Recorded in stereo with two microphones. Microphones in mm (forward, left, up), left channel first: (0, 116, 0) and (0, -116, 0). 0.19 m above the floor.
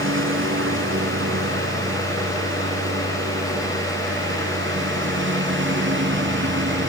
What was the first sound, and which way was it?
A lawn mower, 60° right (ahead or behind).